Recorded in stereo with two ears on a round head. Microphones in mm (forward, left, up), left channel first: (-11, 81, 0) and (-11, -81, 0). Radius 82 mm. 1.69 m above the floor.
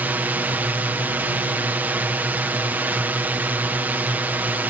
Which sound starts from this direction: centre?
A drone, at 0.0 s.